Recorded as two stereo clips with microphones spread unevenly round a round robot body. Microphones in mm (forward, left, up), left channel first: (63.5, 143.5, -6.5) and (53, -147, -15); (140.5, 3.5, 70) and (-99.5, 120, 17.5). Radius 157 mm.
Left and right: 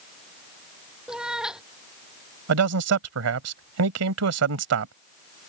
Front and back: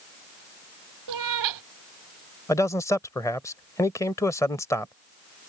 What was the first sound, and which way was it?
A cat meowing, straight behind.